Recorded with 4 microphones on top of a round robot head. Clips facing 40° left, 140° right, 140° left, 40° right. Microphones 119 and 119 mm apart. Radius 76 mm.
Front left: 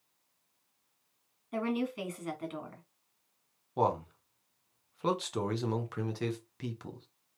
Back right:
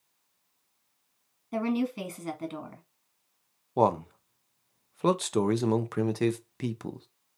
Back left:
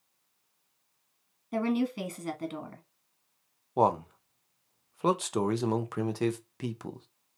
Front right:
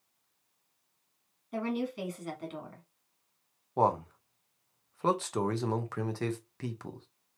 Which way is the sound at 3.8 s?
150° right.